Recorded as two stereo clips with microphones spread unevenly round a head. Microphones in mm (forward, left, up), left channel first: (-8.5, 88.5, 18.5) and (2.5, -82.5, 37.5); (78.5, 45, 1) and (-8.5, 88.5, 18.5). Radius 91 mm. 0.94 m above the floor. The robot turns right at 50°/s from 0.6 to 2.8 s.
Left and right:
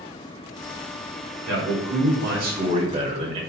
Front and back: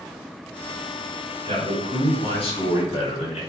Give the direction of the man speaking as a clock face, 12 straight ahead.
3 o'clock.